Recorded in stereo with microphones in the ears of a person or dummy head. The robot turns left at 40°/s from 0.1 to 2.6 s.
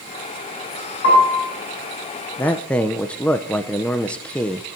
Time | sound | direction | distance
1.0 | a piano | 60° left (ahead or behind) | 9 m
2.4 | a man speaking | 10° left (ahead or behind) | 0.5 m